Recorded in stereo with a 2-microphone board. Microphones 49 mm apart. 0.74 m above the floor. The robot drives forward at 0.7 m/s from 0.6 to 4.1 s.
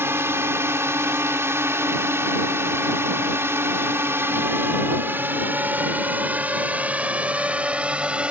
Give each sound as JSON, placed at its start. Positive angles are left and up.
{"t": 0.0, "sound": "a drone", "side_deg": -60}